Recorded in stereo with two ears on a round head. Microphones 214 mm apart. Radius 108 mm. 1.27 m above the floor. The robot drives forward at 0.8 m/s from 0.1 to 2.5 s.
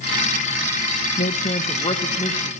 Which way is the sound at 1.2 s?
35° left (ahead or behind).